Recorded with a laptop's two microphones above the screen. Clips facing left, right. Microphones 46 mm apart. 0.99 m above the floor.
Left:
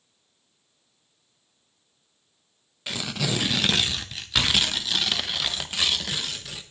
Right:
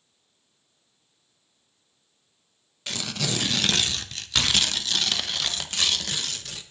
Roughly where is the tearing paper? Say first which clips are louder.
Left 1 dB; centre.